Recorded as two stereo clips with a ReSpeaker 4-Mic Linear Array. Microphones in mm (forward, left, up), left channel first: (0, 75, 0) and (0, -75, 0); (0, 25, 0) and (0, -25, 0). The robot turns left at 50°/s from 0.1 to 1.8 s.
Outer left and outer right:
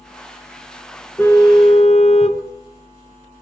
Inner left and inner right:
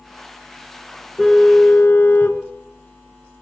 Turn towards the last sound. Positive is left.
turn(degrees=135)